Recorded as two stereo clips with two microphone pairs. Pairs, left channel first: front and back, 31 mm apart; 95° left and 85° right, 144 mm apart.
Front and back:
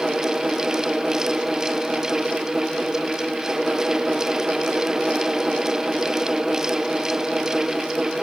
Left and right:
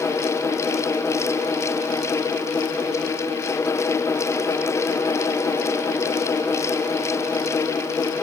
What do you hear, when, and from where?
Only background noise.